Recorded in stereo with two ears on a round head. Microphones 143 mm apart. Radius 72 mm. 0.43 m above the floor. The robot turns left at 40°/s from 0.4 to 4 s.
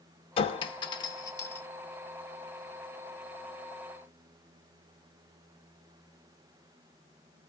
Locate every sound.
0.4 s a clink: 35° left (ahead or behind), 0.5 m; by 1.6 s 15° left (ahead or behind), 0.5 m